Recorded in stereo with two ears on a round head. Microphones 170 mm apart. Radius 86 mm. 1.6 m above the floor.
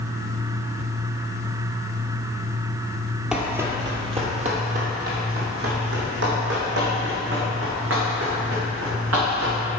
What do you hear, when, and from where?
3.3 s running footsteps: 5° right (ahead or behind), 1.7 m; by 9.6 s 75° right (ahead or behind), 7 m